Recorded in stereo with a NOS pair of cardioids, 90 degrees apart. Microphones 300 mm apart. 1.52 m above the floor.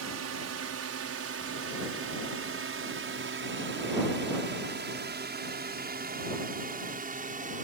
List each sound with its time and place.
0.0 s a drone: 55° right; by 7.7 s 25° right